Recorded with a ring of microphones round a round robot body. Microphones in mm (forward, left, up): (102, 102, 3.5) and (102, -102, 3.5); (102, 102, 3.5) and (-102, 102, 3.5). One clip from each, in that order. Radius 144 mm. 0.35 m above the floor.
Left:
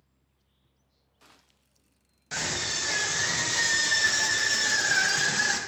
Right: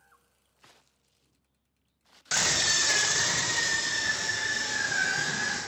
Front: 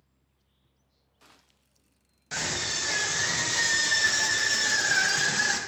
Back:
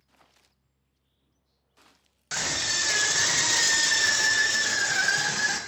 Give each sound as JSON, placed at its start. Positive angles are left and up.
{"t": 2.3, "sound": "a scream", "azimuth_deg": -120, "distance_m": 1.7}